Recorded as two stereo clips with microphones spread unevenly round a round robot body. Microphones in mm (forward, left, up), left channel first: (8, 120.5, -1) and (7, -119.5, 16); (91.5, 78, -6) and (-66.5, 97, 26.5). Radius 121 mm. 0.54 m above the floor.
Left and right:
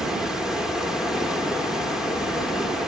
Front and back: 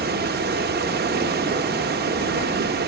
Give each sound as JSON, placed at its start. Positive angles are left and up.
{"t": 0.0, "sound": "running water", "azimuth_deg": 180, "distance_m": 1.4}